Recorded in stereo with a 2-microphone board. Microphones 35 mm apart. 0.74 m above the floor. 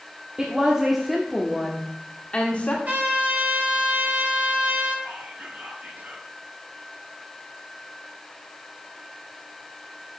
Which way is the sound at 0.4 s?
20° right (ahead or behind).